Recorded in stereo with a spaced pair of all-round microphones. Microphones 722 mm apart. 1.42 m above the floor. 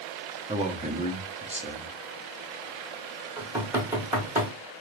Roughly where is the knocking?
Centre.